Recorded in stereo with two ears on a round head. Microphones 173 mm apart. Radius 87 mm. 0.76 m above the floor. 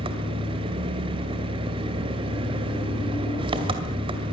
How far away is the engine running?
About 2 m.